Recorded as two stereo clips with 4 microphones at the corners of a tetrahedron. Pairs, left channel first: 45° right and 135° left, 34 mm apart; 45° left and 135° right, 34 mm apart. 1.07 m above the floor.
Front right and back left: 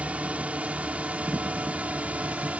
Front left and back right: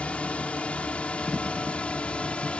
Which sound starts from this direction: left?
A drone, at 0.0 s.